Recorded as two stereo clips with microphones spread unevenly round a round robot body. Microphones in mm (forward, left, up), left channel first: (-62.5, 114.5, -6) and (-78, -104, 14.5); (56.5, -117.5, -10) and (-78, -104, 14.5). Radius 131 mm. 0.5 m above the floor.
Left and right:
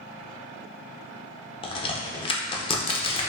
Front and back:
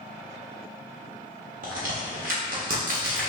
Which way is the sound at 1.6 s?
145° left.